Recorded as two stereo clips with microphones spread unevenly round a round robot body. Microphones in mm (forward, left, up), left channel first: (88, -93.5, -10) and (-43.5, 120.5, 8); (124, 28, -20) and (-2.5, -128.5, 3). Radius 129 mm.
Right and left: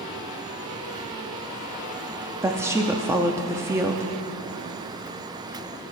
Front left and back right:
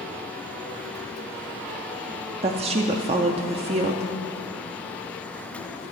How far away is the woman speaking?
About 0.5 m.